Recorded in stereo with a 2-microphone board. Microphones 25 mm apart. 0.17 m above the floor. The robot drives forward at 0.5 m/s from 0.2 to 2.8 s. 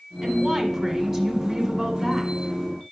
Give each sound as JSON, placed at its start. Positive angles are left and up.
{"t": 0.2, "sound": "a woman speaking", "side_deg": -5, "distance_m": 1.4}